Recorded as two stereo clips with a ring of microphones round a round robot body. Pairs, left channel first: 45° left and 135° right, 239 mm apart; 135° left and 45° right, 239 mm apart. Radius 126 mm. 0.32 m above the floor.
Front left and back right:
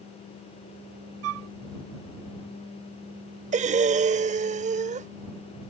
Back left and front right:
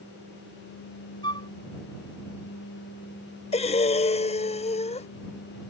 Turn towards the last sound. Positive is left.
turn(degrees=-175)